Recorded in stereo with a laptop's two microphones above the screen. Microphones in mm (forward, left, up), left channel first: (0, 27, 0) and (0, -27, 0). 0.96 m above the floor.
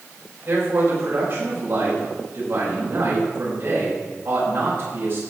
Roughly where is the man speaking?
Right.